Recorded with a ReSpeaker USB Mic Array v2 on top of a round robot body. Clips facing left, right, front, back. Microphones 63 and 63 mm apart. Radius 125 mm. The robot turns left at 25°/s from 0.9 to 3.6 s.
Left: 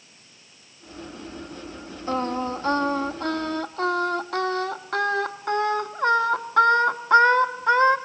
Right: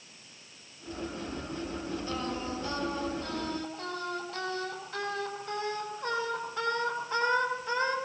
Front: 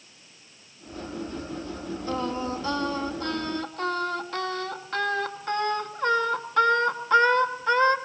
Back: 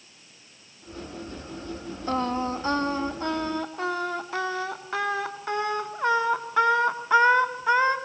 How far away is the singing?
About 1.8 m.